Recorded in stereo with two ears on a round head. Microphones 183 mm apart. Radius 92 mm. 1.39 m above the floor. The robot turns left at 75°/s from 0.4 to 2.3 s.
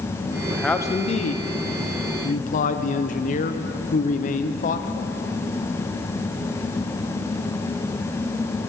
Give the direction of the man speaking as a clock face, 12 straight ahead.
6 o'clock.